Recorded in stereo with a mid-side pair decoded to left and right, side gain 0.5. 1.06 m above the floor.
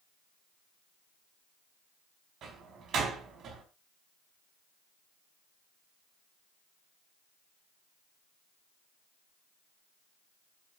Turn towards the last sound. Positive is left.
turn(degrees=-60)